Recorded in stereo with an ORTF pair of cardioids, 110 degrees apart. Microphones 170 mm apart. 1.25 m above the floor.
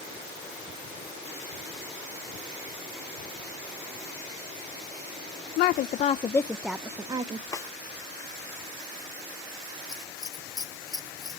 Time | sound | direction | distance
5.6 | a woman speaking | 70° left | 0.6 m
7.5 | a snare drum | 20° left | 1.4 m
9.9 | scissors | 20° left | 1.0 m